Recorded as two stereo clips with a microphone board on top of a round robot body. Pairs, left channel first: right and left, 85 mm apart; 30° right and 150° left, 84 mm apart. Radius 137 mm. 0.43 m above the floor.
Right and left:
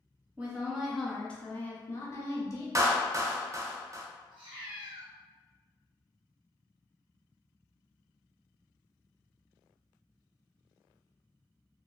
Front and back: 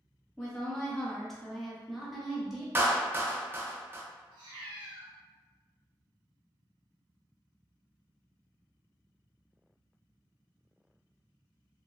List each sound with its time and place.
0.4 s a woman speaking: 40° left, 0.9 m; by 2.6 s 125° right, 1.2 m
2.8 s a clap: 100° left, 0.7 m
4.3 s a cat meowing: 120° left, 0.7 m